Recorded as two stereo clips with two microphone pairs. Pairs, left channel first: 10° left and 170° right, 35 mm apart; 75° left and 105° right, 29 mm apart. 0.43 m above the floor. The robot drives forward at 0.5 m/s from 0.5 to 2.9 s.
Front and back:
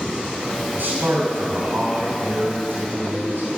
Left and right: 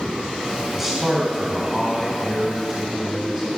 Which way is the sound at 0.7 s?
Straight behind.